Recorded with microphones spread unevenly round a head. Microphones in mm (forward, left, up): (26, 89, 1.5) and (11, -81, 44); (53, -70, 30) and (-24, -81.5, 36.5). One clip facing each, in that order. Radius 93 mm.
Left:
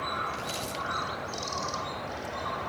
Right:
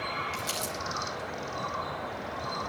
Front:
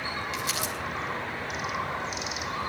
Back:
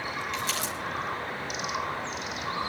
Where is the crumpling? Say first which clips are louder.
Even, even; 70° right, 9.5 m.